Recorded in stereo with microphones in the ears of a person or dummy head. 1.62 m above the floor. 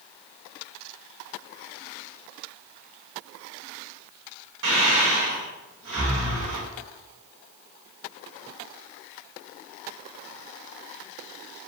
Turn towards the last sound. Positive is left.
turn(degrees=-65)  # may be behind; listen again after turning